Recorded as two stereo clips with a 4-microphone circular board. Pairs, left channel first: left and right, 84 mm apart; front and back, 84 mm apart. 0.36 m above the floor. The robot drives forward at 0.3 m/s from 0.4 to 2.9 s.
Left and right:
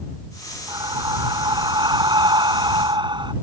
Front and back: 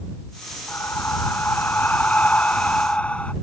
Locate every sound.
0.7 s breathing: 60° right; by 3.3 s 75° right